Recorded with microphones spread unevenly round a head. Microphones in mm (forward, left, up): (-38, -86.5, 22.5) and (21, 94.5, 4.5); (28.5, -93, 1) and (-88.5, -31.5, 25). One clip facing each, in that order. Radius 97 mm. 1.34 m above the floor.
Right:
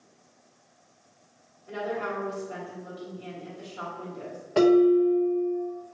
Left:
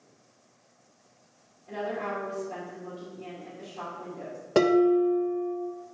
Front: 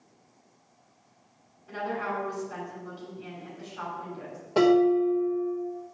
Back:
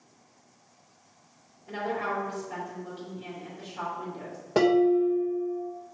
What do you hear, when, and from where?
1.7 s a woman speaking: 175° left, 2.5 m
4.5 s dishes clattering: 100° left, 0.9 m